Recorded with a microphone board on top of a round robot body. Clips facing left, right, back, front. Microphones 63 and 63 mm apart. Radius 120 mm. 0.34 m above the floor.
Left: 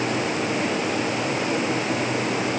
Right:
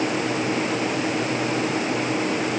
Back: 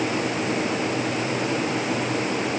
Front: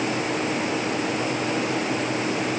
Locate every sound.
Only background noise.